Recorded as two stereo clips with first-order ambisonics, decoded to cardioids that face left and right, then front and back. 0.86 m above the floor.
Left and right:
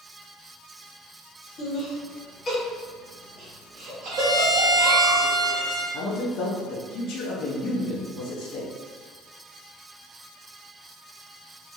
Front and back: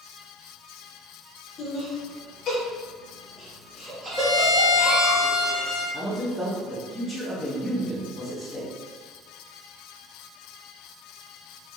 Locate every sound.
1.6 s laughter: 50° left, 1.2 m; by 5.1 s 100° right, 1.2 m
4.1 s a violin: 90° right, 1.0 m
5.9 s a man speaking: 85° left, 0.5 m